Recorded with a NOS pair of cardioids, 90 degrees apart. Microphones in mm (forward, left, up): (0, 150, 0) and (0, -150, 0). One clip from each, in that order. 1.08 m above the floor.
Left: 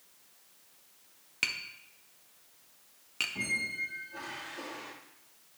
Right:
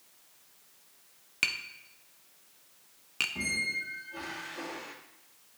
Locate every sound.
1.4 s tapping: 10° right, 0.8 m
3.4 s a squeak: 10° right, 1.5 m